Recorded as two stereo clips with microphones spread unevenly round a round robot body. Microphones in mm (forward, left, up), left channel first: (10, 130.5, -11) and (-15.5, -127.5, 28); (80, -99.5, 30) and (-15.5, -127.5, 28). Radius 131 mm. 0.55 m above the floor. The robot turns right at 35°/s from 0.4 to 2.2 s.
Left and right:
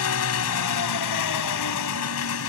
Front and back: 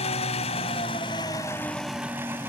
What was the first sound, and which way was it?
An engine running, 55° left.